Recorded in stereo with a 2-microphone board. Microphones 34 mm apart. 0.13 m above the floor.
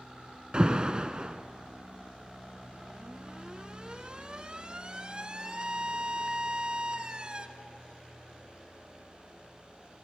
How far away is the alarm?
About 1.0 m.